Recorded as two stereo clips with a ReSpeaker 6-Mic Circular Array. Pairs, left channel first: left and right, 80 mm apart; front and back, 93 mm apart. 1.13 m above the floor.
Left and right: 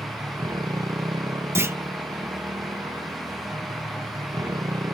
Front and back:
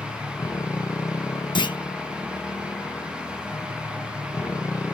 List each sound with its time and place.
0.0 s a motorcycle: 55° right
1.6 s a clunk: 35° right